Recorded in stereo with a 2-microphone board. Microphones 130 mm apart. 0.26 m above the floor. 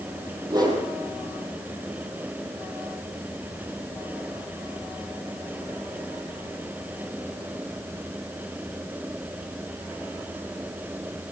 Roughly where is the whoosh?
Right.